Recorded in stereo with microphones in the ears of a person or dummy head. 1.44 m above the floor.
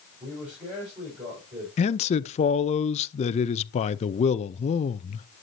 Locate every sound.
0.2 s a man speaking: 25° right (ahead or behind), 5 m
1.8 s a man speaking: 30° left (ahead or behind), 0.6 m